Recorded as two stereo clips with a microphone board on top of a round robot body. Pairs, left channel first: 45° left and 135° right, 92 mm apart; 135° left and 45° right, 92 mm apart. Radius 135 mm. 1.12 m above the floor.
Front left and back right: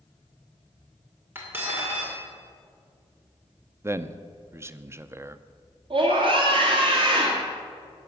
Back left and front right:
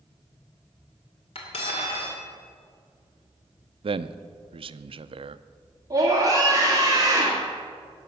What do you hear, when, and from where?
1.4 s cutlery clinking: 155° left, 2.5 m
3.8 s a man speaking: 70° right, 0.6 m
5.9 s a scream: 100° right, 2.0 m